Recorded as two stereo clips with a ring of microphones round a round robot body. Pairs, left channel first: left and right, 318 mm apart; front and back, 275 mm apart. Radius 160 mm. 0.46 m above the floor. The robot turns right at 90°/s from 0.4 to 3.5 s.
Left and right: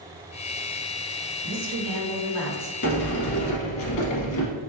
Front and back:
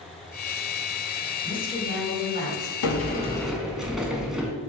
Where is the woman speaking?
95° right, 1.4 m; by 2.7 s 20° left, 1.4 m.